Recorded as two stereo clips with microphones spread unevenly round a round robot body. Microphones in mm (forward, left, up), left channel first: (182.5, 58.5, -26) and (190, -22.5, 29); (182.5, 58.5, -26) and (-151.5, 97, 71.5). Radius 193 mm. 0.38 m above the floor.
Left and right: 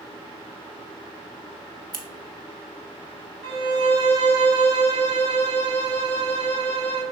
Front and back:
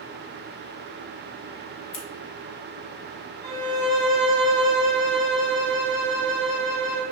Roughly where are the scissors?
Ahead right.